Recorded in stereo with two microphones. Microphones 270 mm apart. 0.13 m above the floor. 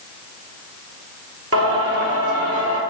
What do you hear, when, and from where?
1.5 s singing: 60° right (ahead or behind), 0.7 m